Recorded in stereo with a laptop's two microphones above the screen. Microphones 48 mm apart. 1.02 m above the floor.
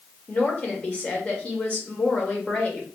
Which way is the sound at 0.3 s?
25° left (ahead or behind).